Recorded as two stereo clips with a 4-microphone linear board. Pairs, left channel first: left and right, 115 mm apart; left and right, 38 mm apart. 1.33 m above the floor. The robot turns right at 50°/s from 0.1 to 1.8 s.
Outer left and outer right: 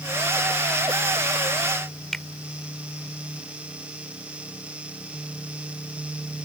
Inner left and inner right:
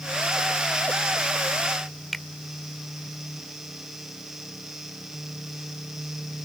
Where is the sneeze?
No sneeze in this recording.